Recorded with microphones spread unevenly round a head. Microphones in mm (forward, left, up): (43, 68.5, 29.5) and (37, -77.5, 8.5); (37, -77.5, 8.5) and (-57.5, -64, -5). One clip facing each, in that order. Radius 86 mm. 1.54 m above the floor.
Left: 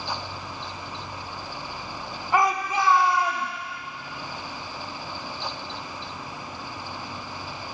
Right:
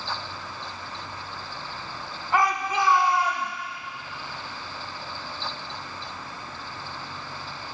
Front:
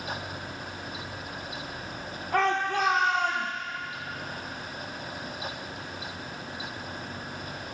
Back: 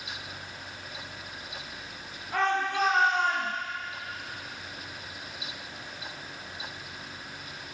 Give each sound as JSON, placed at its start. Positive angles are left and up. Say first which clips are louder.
{"t": 2.3, "sound": "a shout", "louder": "left 1 dB, front 2 dB", "azimuth_deg": 15, "distance_m": 3.5}